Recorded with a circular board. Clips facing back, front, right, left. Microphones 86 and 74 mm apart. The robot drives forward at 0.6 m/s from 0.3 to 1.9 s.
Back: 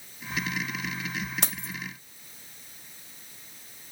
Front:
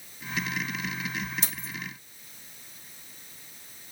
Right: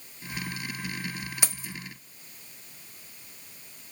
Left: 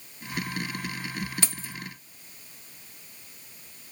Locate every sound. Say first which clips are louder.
1.4 s keys jangling: back 3 dB, even; 165° right, 1.4 m